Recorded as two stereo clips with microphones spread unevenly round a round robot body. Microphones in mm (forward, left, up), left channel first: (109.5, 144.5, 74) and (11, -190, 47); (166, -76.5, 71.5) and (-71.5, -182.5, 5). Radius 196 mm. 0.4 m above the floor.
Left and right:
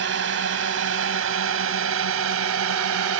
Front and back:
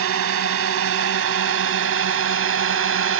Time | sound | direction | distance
0.0 | a drone | 160° right | ?